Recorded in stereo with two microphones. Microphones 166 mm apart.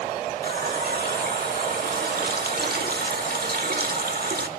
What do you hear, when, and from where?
0.4 s a running tap: 70° right (ahead or behind), 1.3 m